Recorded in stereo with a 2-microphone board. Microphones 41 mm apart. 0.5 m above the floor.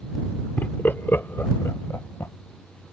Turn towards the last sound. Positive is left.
turn(degrees=70)  # may be behind; listen again after turning